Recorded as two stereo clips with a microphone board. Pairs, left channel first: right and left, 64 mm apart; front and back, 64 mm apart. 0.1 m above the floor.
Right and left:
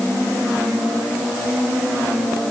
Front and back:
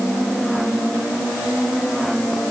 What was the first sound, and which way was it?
Only background noise.